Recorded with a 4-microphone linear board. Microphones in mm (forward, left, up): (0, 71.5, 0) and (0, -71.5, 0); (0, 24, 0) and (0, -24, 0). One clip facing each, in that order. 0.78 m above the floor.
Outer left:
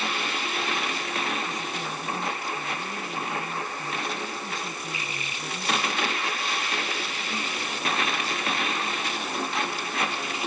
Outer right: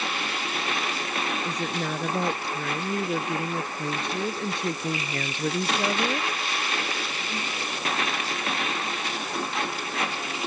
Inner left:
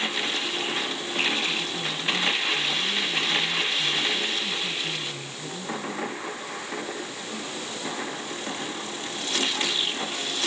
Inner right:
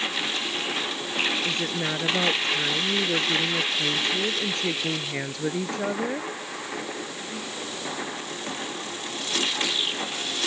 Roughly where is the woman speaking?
Right.